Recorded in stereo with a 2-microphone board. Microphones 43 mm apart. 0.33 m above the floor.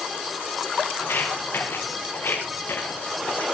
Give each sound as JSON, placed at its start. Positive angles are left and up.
{"t": 1.0, "sound": "footsteps", "side_deg": 60, "distance_m": 9.5}